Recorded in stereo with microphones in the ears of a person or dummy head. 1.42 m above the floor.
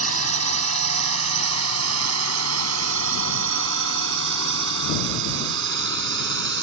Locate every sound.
0.0 s a drone: 85° right; by 6.6 s 60° right (ahead or behind)